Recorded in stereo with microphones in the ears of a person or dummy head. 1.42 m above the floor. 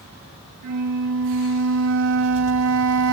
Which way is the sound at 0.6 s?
75° right (ahead or behind).